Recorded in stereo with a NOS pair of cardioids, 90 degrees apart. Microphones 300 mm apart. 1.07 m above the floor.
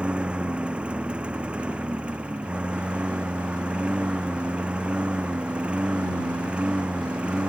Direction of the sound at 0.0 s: 5° right.